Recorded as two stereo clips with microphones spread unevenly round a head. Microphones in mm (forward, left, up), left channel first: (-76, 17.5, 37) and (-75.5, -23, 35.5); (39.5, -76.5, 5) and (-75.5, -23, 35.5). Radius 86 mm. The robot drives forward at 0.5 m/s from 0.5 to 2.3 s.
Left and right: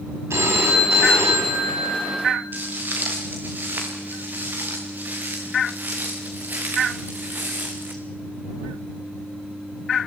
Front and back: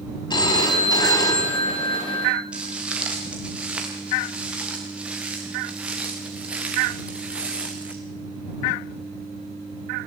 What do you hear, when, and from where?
0.3 s a phone ringing: 80° right, 4.5 m; by 2.4 s 95° right, 4.5 m
2.5 s footsteps: 125° right, 7.5 m; by 8.0 s 130° right, 3.5 m